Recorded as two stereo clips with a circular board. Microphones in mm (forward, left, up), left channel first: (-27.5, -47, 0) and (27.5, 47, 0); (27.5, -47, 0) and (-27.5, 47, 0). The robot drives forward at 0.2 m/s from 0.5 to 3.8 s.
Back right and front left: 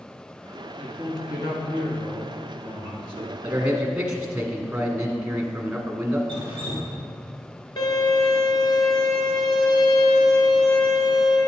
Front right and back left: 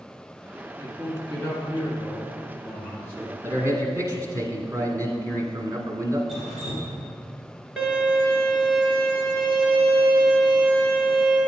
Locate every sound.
0.8 s a man speaking: 100° right, 1.8 m; by 3.3 s 125° right, 1.9 m
3.4 s a man speaking: 135° left, 1.3 m; by 6.2 s 140° left, 1.3 m
6.3 s dripping: 150° right, 3 m
7.8 s a violin: 155° right, 1.5 m